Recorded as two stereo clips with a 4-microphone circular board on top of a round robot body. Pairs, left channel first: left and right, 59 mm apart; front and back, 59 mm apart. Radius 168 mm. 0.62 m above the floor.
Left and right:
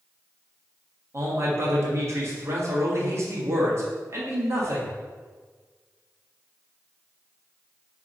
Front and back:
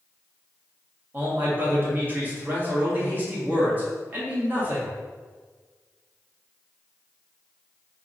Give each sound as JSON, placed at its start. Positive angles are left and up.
{"t": 1.1, "sound": "a man speaking", "azimuth_deg": -125, "distance_m": 1.6}